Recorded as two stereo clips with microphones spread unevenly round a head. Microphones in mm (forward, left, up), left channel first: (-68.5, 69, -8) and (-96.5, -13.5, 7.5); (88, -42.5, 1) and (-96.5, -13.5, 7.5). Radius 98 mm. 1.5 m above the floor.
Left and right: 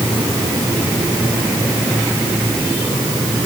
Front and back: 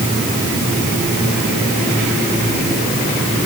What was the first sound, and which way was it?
Only background noise.